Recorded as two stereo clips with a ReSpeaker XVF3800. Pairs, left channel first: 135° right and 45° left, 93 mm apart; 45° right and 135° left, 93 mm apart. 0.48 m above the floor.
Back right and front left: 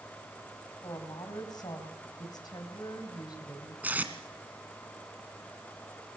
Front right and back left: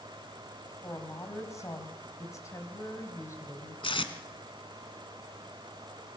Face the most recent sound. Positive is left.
turn(degrees=-25)